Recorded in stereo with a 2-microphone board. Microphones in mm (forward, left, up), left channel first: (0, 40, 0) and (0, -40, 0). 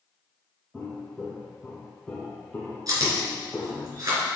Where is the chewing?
50° right (ahead or behind), 3 m.